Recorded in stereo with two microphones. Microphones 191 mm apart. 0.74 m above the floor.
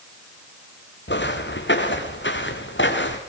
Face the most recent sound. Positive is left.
turn(degrees=75)  # may be behind; listen again after turning